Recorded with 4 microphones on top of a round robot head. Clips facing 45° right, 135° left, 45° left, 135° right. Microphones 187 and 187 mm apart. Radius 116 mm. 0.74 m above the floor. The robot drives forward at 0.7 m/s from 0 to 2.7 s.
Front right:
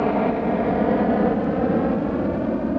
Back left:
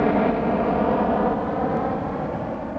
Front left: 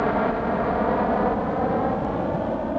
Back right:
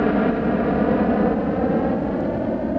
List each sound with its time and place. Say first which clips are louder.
0.0 s a helicopter: back left 1 dB, back right 4 dB; 145° right; by 2.8 s 70° right